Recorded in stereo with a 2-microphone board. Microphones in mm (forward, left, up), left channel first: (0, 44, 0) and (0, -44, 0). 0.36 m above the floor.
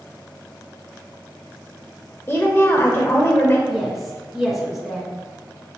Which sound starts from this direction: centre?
A woman speaking, at 3.7 s.